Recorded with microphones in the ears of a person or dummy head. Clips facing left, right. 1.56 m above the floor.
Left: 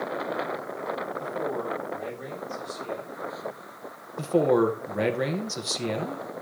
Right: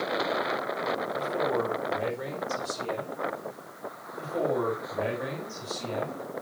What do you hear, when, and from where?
1.2 s a man speaking: 80° right, 5.5 m; by 3.2 s 65° right (ahead or behind), 5 m
4.2 s a man speaking: 75° left (ahead or behind), 1.6 m